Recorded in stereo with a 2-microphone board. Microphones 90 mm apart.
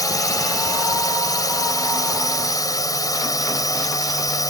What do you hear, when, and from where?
0.0 s a drone: 45° left (ahead or behind)